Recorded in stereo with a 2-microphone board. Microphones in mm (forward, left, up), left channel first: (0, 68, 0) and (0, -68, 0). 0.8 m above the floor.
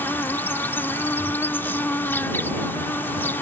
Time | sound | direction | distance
0.0 | an insect | 15° left (ahead or behind) | ?